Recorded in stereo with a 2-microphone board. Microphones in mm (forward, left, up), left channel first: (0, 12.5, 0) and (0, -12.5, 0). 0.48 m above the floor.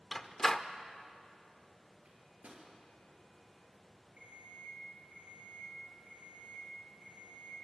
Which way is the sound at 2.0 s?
65° right (ahead or behind).